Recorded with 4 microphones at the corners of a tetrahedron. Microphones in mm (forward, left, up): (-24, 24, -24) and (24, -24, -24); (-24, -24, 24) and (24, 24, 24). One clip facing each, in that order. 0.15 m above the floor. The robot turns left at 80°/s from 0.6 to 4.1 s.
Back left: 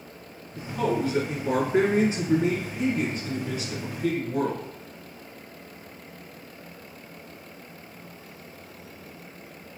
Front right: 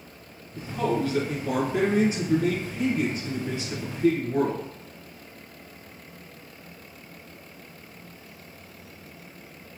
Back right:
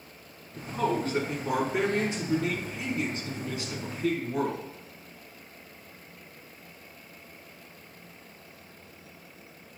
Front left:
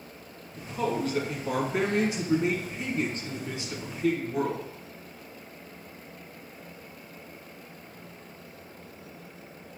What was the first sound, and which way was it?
A man speaking, 125° right.